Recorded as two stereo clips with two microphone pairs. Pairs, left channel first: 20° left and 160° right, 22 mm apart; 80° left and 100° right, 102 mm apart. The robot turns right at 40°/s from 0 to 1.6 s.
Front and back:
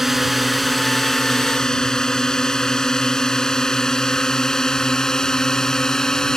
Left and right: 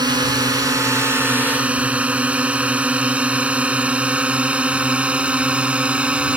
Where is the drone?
90° right; by 6.4 s 25° right.